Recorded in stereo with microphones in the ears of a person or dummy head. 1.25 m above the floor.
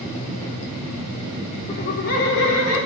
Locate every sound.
1.7 s laughter: 35° left (ahead or behind), 0.6 m; by 2.8 s 90° left, 1.9 m